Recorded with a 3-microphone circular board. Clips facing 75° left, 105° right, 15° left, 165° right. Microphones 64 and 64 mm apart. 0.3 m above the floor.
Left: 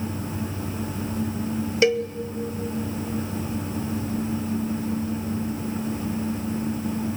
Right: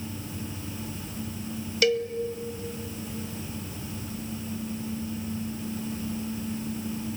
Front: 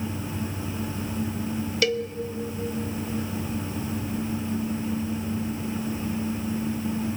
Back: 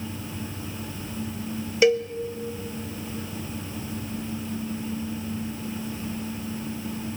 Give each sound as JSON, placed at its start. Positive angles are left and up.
{"t": 1.8, "sound": "a cowbell", "azimuth_deg": 135, "distance_m": 0.8}